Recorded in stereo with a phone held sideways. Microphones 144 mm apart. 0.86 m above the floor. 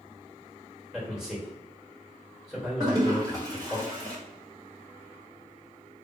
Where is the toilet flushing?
25° right (ahead or behind), 1.4 m.